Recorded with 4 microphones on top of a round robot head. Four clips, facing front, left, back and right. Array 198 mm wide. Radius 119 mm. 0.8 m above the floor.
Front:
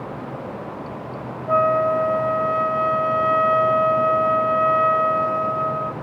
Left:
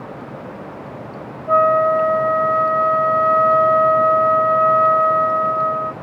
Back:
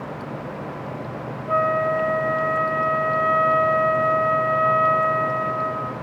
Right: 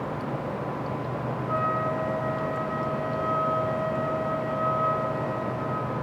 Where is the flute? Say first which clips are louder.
Left 14 dB, front 3 dB; 60° left, 1.5 m.